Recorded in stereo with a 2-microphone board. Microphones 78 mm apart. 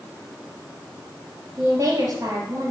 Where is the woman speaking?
55° right (ahead or behind), 3 m.